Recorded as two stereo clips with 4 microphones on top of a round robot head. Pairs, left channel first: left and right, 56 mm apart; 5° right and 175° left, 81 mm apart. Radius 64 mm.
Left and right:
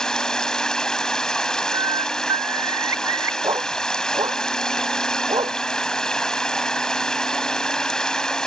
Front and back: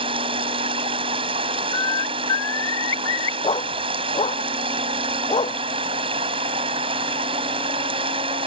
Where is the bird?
55° right.